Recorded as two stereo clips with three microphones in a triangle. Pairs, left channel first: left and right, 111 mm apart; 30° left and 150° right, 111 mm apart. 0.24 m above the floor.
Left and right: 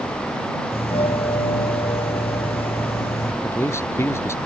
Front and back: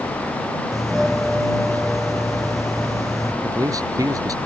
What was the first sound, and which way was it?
A doorbell, 120° left.